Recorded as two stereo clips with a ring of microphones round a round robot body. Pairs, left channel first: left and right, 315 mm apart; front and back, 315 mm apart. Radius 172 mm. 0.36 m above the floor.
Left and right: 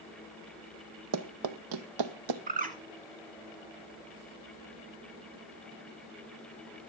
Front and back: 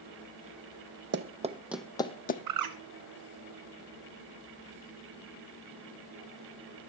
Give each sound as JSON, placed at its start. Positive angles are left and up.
{"t": 1.1, "sound": "running footsteps", "azimuth_deg": -125, "distance_m": 1.3}
{"t": 2.5, "sound": "a bird", "azimuth_deg": -155, "distance_m": 1.5}